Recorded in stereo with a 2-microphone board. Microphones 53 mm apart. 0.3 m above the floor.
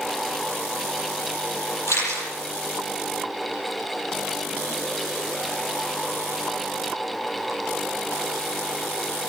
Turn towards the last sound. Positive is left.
turn(degrees=75)  # may be behind; listen again after turning